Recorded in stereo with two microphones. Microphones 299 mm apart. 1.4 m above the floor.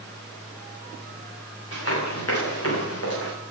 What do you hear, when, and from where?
1.7 s running footsteps: 50° left (ahead or behind), 9 m; by 3.3 s 55° left (ahead or behind), 7.5 m